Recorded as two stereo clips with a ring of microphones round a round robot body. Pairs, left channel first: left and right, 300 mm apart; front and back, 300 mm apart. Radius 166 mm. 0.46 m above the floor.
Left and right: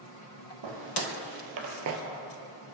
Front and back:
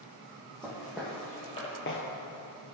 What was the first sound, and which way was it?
Footsteps, 95° right.